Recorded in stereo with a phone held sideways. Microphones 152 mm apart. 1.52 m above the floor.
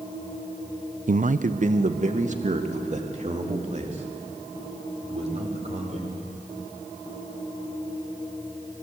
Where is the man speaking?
55° right (ahead or behind), 0.6 m; by 6.0 s 45° right (ahead or behind), 5 m.